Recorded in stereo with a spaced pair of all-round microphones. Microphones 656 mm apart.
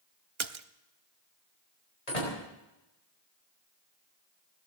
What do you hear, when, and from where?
0.4 s a splash: 45° right (ahead or behind), 0.7 m
2.1 s a door slam: 70° left (ahead or behind), 5 m